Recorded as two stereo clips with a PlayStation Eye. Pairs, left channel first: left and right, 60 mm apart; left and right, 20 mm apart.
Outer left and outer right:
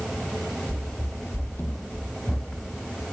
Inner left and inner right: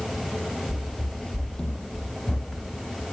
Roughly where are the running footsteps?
Centre.